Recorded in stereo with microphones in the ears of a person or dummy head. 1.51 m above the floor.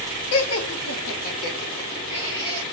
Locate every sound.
0.3 s laughter: 65° left (ahead or behind), 0.6 m; by 2.6 s 25° left (ahead or behind), 1.4 m